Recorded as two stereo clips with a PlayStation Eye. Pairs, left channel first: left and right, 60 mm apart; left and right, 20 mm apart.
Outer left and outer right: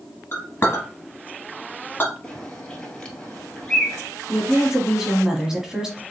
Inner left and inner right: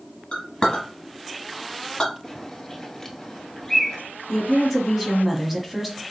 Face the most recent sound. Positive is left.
turn(degrees=-10)  # may be behind; listen again after turning